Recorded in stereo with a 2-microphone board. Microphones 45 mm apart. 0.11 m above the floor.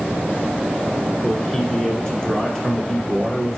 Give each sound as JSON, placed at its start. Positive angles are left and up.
{"t": 1.2, "sound": "a man speaking", "side_deg": 15, "distance_m": 1.1}